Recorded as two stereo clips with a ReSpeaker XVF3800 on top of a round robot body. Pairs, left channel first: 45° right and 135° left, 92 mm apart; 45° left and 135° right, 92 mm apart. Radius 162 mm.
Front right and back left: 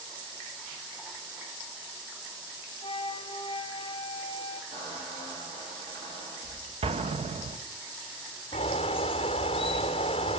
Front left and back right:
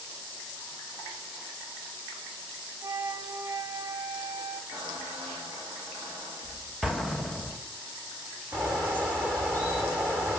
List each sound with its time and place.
2.8 s a flute: 80° right, 1.4 m
4.7 s a squeak: 160° left, 4.5 m
6.8 s an explosion: 135° left, 1.2 m
8.5 s a bird: 65° right, 0.6 m